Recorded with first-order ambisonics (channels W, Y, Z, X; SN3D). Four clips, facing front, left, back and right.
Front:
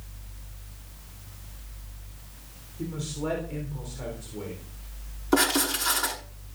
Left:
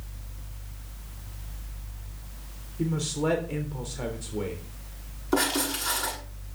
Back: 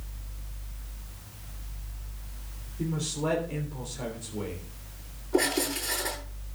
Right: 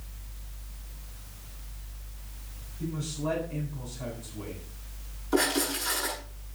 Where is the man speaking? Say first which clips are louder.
Left 6 dB, back 2 dB; 95° left, 3.5 m.